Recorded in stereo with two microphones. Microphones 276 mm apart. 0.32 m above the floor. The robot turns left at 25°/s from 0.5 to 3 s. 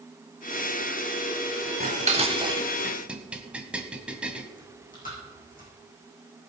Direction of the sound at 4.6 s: 30° left (ahead or behind).